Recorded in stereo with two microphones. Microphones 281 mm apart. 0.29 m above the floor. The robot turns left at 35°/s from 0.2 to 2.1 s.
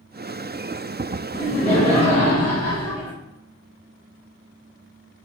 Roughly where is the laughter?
Left.